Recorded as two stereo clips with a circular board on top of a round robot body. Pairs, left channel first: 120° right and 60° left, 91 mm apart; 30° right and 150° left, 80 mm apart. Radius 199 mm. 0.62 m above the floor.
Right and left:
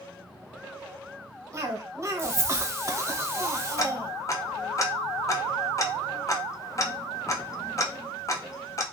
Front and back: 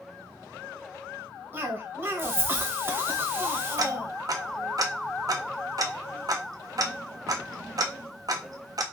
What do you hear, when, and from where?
1.5 s a cough: 105° left, 0.9 m
3.8 s ticking: 170° right, 0.5 m